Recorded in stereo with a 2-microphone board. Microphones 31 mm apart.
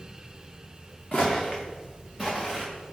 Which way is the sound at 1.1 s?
20° left (ahead or behind).